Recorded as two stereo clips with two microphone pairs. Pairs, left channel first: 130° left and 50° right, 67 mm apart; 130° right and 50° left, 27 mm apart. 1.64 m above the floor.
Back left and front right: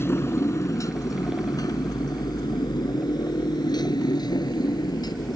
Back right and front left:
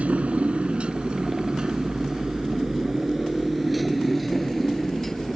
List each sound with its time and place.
0.0 s a motorcycle: 75° left; by 5.4 s 145° left